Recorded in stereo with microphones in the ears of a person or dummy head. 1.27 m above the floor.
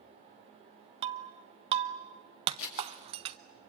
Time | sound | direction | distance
1.0 | breaking glass | 25° right (ahead or behind) | 0.5 m
2.6 | scissors | 75° left (ahead or behind) | 4.5 m